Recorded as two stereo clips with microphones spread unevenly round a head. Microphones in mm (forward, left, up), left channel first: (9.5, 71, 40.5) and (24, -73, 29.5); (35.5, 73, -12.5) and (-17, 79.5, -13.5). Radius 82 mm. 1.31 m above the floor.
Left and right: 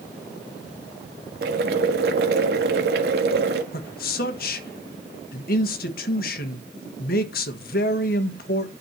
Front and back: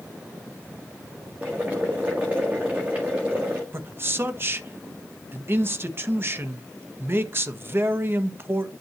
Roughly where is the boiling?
Right.